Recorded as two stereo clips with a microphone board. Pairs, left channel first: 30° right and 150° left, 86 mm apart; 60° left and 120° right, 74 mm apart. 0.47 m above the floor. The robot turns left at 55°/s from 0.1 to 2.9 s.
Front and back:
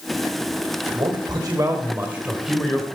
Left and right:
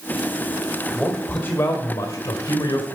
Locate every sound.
0.9 s a man speaking: 150° left, 2.0 m; by 2.9 s 40° left, 2.0 m